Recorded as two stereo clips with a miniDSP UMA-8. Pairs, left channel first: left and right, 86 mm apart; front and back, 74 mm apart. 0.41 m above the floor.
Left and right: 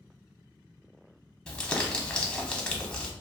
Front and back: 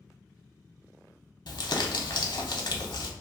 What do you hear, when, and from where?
1.5 s crumpling: 10° left, 0.6 m